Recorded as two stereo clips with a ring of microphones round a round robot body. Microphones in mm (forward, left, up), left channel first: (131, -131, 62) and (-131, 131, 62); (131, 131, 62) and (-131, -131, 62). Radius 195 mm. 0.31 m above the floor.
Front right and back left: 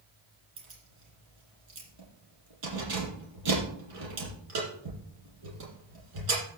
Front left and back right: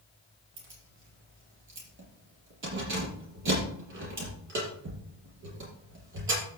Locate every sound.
0.6 s keys jangling: 165° left, 6.5 m